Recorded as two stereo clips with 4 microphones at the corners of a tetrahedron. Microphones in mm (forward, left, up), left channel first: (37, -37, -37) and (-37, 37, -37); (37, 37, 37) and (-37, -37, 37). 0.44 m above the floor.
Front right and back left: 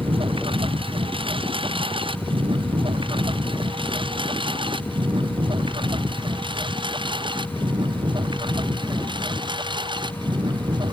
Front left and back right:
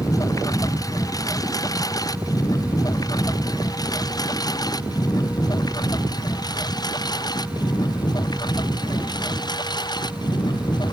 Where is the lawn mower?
100° left; by 10.9 s 90° left.